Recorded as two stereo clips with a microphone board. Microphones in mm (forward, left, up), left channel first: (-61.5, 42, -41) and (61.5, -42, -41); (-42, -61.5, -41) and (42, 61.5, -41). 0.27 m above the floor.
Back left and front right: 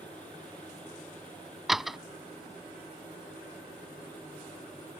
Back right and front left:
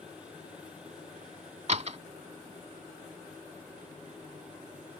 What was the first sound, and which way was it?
A door slam, 55° left.